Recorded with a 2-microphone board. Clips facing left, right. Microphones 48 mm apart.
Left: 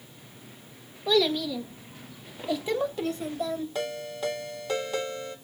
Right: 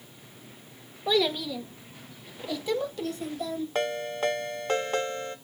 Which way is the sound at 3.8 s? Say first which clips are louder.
Right 3 dB; 45° right (ahead or behind).